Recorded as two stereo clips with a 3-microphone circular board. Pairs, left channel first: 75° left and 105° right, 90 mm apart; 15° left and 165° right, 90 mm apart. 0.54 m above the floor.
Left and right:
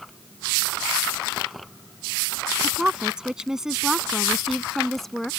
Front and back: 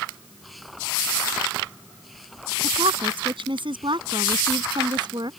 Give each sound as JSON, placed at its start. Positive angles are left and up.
{"t": 2.6, "sound": "a woman speaking", "azimuth_deg": 175}